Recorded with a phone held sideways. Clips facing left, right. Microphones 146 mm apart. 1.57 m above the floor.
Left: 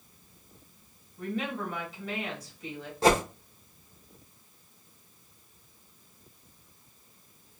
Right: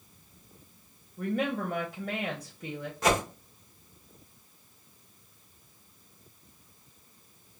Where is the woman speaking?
60° right (ahead or behind), 0.8 m.